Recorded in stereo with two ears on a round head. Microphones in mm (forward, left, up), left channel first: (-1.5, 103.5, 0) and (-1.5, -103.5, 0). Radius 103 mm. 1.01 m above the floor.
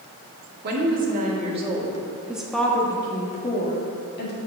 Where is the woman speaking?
45° right (ahead or behind), 1.8 m; by 4.4 s 45° left (ahead or behind), 1.9 m.